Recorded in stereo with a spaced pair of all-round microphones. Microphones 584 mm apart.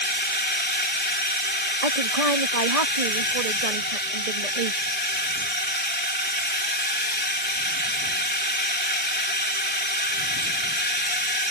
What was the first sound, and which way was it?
A drone, 15° left (ahead or behind).